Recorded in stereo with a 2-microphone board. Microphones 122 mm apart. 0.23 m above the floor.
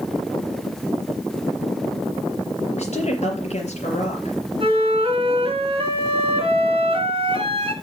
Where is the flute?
45° right (ahead or behind), 3 m.